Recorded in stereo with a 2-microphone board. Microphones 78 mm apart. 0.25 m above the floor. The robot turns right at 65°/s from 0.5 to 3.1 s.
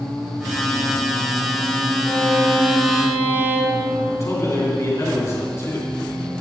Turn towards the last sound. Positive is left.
turn(degrees=40)  # may be behind; listen again after turning